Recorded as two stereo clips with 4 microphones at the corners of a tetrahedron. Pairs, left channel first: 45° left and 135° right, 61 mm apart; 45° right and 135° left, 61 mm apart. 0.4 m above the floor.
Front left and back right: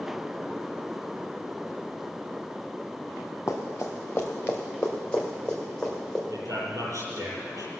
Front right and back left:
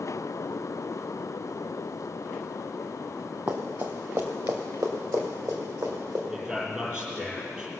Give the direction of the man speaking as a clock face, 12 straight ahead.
5 o'clock.